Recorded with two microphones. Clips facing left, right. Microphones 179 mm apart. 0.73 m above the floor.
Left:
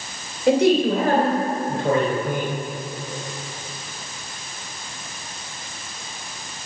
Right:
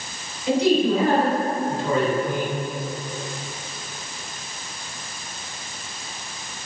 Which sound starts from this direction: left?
A man speaking, at 0.5 s.